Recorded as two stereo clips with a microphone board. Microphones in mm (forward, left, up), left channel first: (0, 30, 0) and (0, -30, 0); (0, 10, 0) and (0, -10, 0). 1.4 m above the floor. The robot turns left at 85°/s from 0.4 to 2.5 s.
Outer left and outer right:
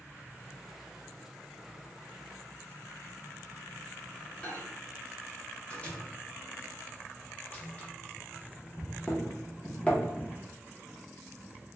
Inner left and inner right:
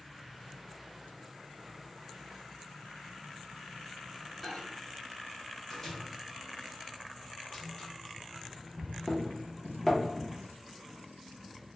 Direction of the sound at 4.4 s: 20° left (ahead or behind).